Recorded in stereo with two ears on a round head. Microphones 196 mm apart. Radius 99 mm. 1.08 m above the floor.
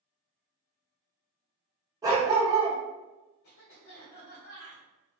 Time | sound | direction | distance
2.0 | a dog barking | 15° right (ahead or behind) | 0.7 m
3.4 | a cough | 50° left (ahead or behind) | 0.8 m